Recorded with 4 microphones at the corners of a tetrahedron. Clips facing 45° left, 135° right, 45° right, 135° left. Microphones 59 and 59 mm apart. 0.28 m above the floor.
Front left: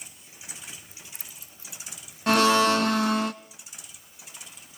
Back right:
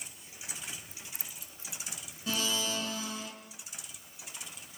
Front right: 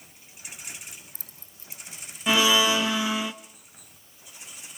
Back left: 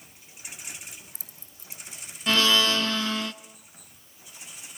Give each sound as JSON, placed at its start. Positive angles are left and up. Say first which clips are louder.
{"t": 0.9, "sound": "keys jangling", "louder": "even, even", "azimuth_deg": -30, "distance_m": 1.0}
{"t": 2.3, "sound": "a blender", "louder": "front left 15 dB, front right 2 dB", "azimuth_deg": 30, "distance_m": 0.8}